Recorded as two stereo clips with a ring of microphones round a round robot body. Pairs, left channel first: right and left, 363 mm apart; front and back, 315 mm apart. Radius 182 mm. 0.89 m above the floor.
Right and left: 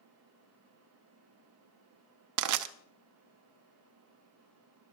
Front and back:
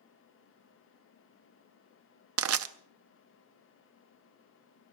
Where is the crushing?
130° left, 0.7 m.